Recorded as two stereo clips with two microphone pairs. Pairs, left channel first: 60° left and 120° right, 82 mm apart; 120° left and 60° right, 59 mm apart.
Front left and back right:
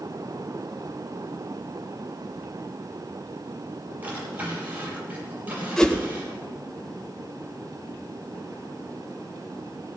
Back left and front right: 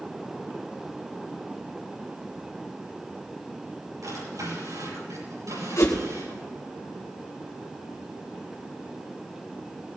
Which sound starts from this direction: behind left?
A whoosh, at 5.8 s.